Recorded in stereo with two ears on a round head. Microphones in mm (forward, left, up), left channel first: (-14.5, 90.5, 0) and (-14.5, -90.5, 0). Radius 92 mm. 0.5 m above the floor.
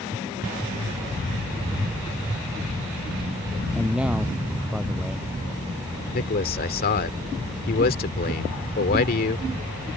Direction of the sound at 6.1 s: 45° left (ahead or behind).